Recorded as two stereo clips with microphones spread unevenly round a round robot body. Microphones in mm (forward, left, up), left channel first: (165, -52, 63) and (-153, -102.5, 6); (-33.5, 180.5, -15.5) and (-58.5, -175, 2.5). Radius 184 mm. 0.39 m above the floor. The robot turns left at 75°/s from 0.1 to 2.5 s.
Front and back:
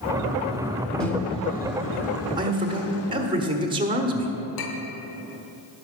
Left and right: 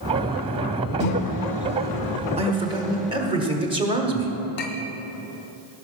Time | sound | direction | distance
1.0 | a microwave | 110° left | 0.9 m
2.4 | a man speaking | 150° right | 1.3 m
4.6 | a clink | 30° left | 1.2 m